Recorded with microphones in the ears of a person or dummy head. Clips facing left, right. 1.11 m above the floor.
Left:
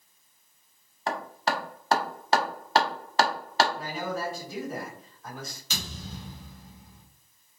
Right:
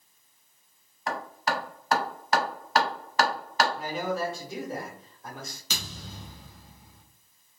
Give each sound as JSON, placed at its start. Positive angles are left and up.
{"t": 1.1, "sound": "hammering", "side_deg": 30, "distance_m": 0.7}
{"t": 3.8, "sound": "a man speaking", "side_deg": -20, "distance_m": 1.4}
{"t": 5.7, "sound": "a thud", "side_deg": -65, "distance_m": 0.7}